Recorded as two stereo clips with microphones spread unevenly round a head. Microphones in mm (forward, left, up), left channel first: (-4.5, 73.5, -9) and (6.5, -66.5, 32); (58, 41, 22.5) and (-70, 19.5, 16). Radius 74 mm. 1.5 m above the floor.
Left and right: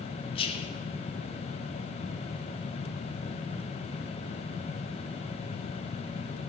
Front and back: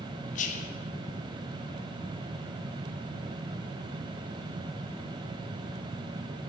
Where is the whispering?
35° left, 0.9 m.